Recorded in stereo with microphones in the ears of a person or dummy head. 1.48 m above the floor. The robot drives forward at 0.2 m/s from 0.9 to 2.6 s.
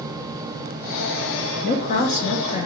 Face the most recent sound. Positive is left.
turn(degrees=30)  # may be behind; listen again after turning